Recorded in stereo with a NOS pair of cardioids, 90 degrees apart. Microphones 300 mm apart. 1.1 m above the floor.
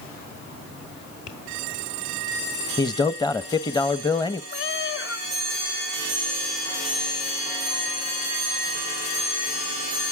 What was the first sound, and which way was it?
Tapping, 65° left.